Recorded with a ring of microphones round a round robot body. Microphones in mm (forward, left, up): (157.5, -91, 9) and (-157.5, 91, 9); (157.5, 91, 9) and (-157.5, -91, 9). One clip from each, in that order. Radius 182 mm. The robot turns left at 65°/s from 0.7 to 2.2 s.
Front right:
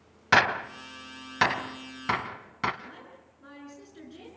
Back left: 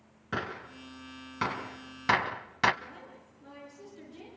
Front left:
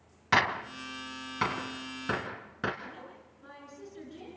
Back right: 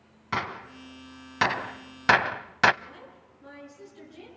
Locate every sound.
0.3 s a gunshot: 40° right, 0.7 m; by 2.7 s 140° right, 0.7 m
2.8 s a woman speaking: 55° right, 7.5 m